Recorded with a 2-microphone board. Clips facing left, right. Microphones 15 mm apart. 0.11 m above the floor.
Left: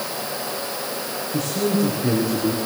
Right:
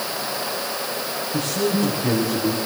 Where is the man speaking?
30° left (ahead or behind), 7.5 m; by 2.6 s 25° left (ahead or behind), 6.5 m.